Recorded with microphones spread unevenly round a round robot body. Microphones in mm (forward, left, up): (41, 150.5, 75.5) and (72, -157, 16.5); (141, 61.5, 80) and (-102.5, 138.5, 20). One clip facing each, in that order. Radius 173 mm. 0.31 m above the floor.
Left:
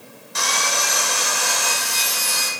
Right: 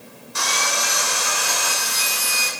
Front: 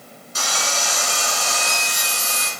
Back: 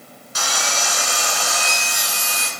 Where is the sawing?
150° left, 1.9 m.